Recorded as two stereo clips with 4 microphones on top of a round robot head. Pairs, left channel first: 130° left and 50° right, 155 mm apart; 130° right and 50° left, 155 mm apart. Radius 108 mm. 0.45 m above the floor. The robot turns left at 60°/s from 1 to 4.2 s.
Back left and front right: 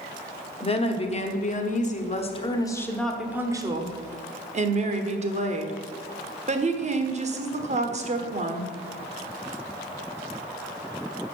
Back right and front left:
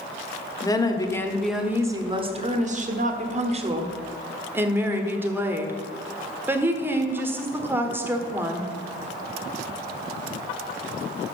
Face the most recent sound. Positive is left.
turn(degrees=-25)